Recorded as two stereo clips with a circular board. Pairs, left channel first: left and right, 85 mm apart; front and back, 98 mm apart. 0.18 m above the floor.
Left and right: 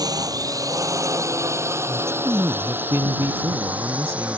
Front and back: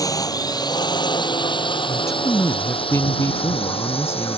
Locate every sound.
0.0 s a drone: 50° right; by 4.4 s 15° right
1.9 s a man speaking: 50° right